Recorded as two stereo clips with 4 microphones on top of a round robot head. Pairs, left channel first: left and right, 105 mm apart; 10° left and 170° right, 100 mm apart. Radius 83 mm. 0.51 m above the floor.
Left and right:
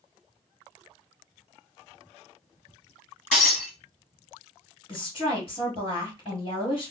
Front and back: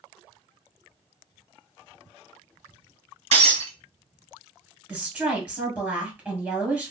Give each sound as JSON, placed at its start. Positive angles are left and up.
{"t": 3.3, "sound": "breaking glass", "azimuth_deg": 175, "distance_m": 1.9}
{"t": 4.9, "sound": "a woman speaking", "azimuth_deg": 115, "distance_m": 1.9}